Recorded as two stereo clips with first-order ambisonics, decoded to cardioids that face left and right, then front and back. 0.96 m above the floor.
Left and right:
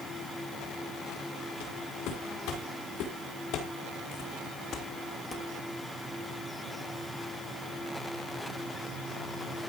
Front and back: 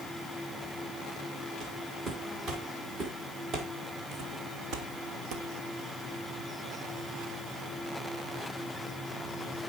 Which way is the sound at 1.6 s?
120° left.